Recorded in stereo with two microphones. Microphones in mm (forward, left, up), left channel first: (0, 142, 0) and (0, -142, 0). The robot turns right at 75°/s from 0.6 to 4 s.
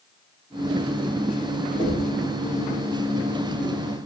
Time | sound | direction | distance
1.8 | knocking | 25° right (ahead or behind) | 4 m